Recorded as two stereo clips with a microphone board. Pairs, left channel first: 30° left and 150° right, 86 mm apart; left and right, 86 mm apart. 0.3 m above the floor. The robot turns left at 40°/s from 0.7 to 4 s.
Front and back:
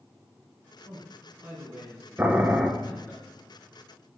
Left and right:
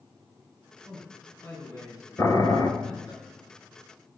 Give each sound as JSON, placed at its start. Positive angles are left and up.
{"t": 0.8, "sound": "a man speaking", "azimuth_deg": 170, "distance_m": 3.5}
{"t": 2.2, "sound": "boiling", "azimuth_deg": 140, "distance_m": 0.9}